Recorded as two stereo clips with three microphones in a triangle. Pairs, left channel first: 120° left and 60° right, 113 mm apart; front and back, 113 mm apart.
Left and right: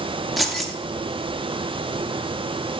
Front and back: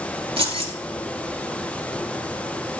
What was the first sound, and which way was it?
Keys jangling, 150° right.